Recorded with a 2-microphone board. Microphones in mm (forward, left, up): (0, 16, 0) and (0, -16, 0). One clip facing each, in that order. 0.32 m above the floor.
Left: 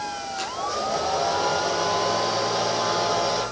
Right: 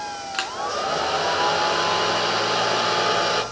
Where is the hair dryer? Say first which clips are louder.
Right 3 dB; 70° right (ahead or behind), 4 m.